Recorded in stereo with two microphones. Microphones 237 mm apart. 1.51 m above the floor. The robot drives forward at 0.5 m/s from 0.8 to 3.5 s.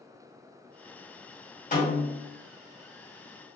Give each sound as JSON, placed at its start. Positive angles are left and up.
{"t": 1.7, "sound": "a snare drum", "side_deg": 35, "distance_m": 1.6}